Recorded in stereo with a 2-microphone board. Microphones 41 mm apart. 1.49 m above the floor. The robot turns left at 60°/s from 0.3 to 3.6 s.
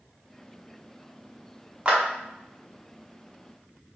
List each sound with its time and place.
1.9 s a clap: 25° right (ahead or behind), 0.7 m; by 2.0 s 30° right (ahead or behind), 0.7 m